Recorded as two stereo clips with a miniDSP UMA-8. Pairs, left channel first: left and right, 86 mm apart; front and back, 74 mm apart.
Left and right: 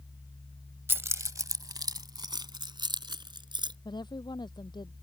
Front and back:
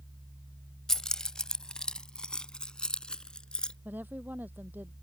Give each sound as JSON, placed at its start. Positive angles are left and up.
{"t": 0.9, "sound": "keys jangling", "azimuth_deg": -75}
{"t": 3.9, "sound": "a woman speaking", "azimuth_deg": 115}